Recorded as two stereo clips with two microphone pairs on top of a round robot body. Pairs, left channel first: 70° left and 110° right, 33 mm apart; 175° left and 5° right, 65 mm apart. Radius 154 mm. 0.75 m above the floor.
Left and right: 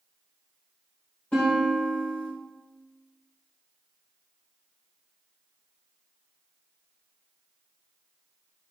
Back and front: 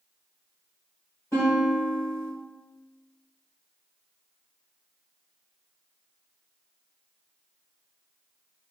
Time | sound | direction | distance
1.3 | a guitar | 125° left | 1.5 m